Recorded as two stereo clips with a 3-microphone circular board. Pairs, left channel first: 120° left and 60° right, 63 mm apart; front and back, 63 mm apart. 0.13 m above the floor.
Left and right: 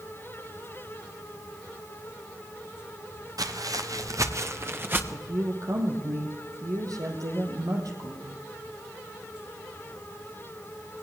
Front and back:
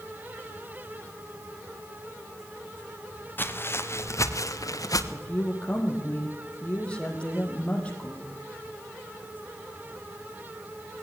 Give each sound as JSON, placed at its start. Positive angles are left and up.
{"t": 3.4, "sound": "footsteps", "azimuth_deg": -55, "distance_m": 2.5}
{"t": 5.1, "sound": "a woman speaking", "azimuth_deg": -70, "distance_m": 4.5}